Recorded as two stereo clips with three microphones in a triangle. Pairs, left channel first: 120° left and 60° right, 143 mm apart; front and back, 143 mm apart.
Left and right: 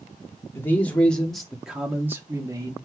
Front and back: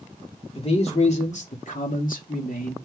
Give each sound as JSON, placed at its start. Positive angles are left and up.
{"t": 0.6, "sound": "a man speaking", "azimuth_deg": 45, "distance_m": 3.0}